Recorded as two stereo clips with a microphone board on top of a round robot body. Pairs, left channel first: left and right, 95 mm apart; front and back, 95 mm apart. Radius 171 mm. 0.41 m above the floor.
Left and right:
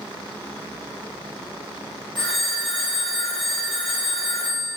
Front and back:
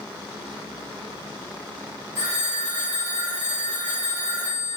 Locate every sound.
2.1 s a phone ringing: 125° left, 1.5 m